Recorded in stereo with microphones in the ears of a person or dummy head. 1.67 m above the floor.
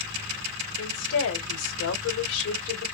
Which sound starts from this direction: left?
A woman speaking, at 0.8 s.